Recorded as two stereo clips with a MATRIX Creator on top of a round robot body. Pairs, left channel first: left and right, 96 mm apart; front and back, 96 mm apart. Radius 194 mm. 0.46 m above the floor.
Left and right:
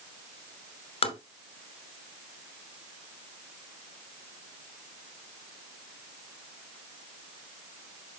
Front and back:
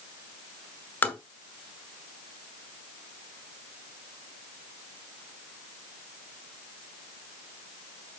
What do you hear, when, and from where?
1.0 s tapping: 70° left, 2 m